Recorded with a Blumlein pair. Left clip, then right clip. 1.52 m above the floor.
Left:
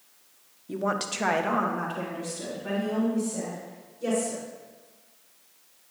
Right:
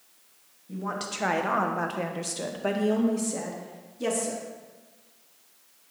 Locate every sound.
0.7 s a woman speaking: 30° left, 1.1 m; by 4.4 s 55° right, 3 m